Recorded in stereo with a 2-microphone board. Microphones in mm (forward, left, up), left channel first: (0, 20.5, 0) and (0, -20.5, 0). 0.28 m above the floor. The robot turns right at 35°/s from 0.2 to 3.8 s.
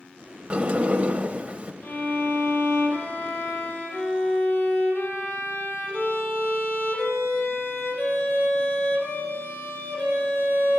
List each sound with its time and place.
0.5 s a sliding door: 105° right, 0.5 m; by 1.7 s 65° right, 0.5 m
1.8 s a violin: 55° left, 3.5 m; by 10.8 s 125° left, 3.5 m